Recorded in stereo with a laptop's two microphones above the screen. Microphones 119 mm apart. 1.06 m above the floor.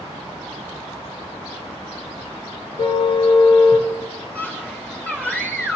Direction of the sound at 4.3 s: 15° left (ahead or behind).